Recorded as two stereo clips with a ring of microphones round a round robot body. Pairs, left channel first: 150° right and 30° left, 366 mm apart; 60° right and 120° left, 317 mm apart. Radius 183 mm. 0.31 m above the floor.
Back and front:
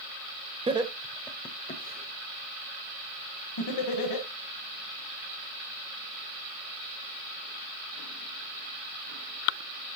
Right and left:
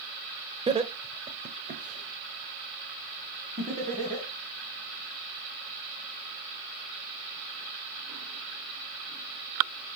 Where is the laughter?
80° left, 1.0 m; by 4.3 s 170° right, 2 m.